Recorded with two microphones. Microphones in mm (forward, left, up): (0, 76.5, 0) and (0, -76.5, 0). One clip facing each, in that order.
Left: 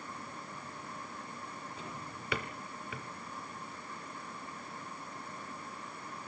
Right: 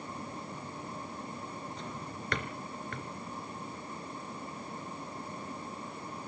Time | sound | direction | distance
1.8 | a drawer | 5° left (ahead or behind) | 1.1 m